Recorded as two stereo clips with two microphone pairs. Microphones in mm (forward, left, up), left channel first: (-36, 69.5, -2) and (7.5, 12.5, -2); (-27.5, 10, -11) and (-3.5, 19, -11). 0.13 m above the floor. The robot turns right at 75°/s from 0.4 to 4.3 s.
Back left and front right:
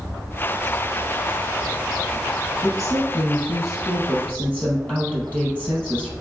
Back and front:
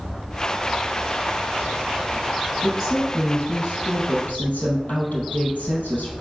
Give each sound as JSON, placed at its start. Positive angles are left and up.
{"t": 2.6, "sound": "a woman speaking", "azimuth_deg": 75, "distance_m": 3.5}